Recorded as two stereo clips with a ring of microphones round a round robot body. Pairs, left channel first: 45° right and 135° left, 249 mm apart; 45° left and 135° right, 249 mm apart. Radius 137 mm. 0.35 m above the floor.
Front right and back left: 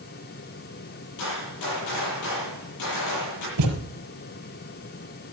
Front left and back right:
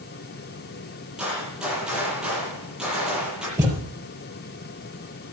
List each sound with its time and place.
1.2 s a gunshot: 50° right, 9.5 m
3.6 s a thud: 145° left, 4 m